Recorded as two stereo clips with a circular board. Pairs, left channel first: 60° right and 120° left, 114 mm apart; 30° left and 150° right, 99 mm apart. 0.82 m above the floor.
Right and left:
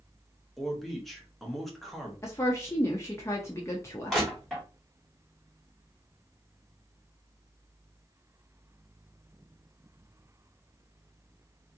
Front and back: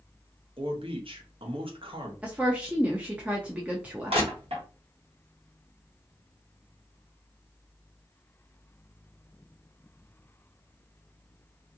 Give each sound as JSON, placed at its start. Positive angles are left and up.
{"t": 0.6, "sound": "a man speaking", "azimuth_deg": -150, "distance_m": 1.0}
{"t": 2.2, "sound": "a woman speaking", "azimuth_deg": -90, "distance_m": 0.6}
{"t": 4.1, "sound": "crushing", "azimuth_deg": -150, "distance_m": 1.4}